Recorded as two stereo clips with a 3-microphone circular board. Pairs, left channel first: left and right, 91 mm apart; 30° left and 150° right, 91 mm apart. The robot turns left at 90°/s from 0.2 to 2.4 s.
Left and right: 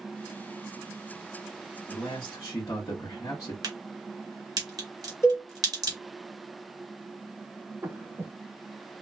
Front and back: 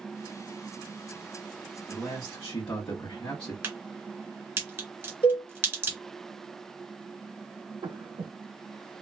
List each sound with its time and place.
1.9 s a man speaking: 90° left, 1.2 m; by 3.5 s 45° left, 1.2 m
3.6 s a crack: 95° right, 1.4 m
5.2 s a cowbell: 35° left, 1.5 m
7.8 s breathing: 155° right, 0.8 m